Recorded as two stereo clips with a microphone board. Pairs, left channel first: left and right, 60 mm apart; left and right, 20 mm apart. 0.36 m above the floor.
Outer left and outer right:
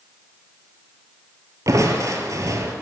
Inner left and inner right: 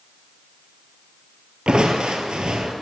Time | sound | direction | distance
1.7 | crushing | 65° right (ahead or behind) | 1.1 m